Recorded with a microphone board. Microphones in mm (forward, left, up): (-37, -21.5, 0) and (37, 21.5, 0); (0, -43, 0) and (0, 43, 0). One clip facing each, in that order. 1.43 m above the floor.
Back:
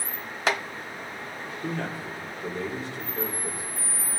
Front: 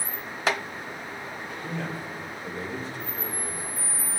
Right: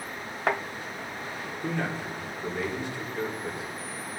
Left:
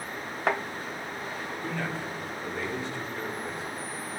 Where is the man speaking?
160° right, 3.5 m; by 3.6 s 165° right, 6 m.